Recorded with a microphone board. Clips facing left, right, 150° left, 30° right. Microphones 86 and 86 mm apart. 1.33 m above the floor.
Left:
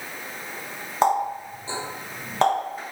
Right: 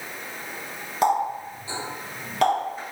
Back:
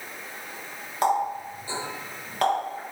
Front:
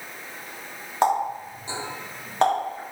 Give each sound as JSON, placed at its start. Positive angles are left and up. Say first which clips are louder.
{"t": 1.0, "sound": "a running tap", "louder": "left 1 dB, front 2 dB", "azimuth_deg": 30, "distance_m": 1.7}